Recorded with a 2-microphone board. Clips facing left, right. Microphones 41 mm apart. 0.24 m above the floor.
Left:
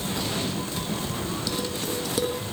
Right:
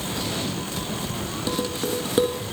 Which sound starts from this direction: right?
Dishes clattering, at 1.5 s.